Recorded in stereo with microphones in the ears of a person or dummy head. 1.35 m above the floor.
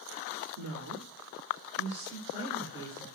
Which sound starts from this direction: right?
A woman speaking, at 0.6 s.